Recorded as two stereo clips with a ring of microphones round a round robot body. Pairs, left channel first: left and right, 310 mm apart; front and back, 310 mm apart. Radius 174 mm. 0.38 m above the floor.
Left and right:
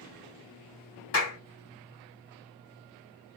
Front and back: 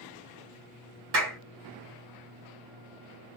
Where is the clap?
130° left, 2 m.